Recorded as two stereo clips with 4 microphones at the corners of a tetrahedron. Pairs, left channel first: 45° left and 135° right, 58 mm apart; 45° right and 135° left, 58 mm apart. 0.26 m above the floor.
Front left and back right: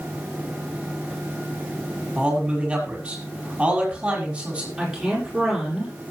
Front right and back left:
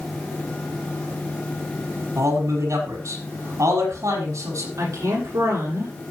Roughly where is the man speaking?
Behind left.